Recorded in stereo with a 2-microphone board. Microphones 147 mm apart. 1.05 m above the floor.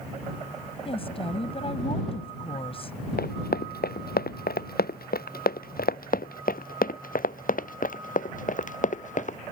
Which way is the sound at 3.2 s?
80° left.